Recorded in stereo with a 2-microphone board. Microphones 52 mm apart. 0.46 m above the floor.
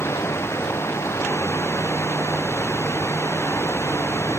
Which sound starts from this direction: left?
Running water, at 0.0 s.